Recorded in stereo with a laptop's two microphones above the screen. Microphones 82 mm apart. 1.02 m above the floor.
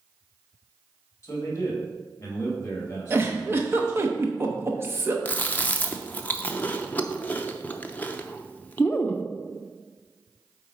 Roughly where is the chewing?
Centre.